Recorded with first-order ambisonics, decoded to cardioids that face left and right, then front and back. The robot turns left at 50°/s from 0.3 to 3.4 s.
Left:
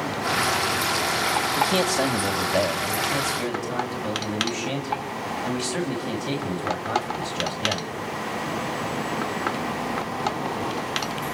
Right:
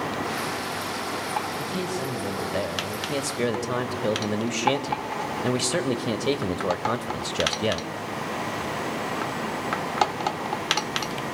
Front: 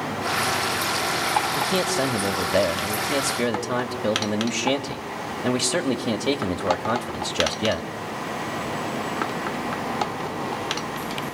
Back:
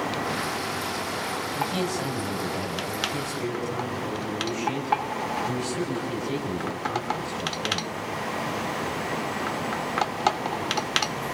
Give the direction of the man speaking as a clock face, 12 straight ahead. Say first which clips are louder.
Left 8 dB, front 5 dB; 10 o'clock.